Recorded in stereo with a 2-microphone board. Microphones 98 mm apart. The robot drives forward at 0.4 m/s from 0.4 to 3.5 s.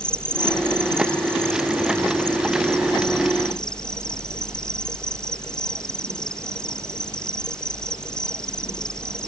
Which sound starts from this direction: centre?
An insect, at 0.0 s.